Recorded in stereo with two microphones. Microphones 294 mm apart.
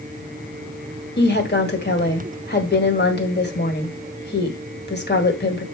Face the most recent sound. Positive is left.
turn(degrees=35)  # may be behind; listen again after turning